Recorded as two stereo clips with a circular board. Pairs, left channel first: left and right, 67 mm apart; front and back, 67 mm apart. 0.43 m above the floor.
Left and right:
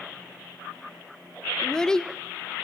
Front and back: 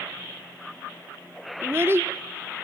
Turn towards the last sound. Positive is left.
turn(degrees=165)